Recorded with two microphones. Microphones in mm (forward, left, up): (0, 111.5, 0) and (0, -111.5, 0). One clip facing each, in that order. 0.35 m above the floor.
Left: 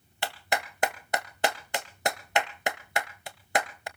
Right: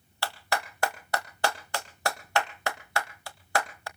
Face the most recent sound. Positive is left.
turn(degrees=20)  # may be behind; listen again after turning